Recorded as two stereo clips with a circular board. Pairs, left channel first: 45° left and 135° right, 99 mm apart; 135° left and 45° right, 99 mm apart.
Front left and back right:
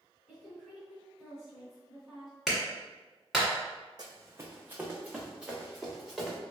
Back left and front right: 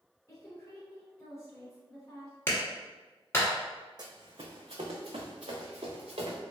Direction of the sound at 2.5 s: 135° left.